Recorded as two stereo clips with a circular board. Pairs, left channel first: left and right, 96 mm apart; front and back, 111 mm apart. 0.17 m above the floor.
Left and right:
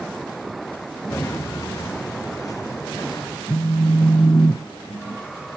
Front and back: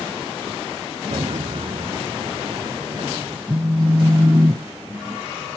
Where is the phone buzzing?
130° left, 1.2 m.